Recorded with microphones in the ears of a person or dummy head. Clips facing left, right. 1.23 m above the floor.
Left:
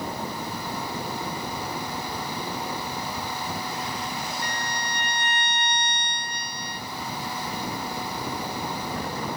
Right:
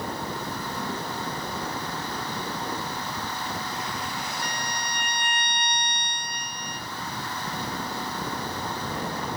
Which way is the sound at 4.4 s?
10° right (ahead or behind).